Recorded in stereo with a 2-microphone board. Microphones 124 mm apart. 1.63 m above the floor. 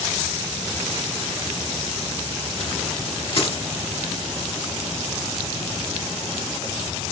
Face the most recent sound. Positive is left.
turn(degrees=45)  # may be behind; listen again after turning